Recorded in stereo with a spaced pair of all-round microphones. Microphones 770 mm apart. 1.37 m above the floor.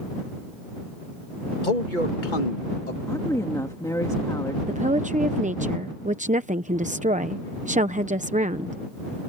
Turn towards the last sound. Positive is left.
turn(degrees=-10)  # may be behind; listen again after turning